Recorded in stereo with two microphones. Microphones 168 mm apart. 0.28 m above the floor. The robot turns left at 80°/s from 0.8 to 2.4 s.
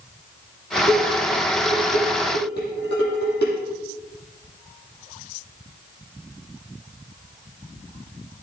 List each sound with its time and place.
0.9 s dishes clattering: 30° right (ahead or behind), 6 m; by 3.5 s 85° left, 6 m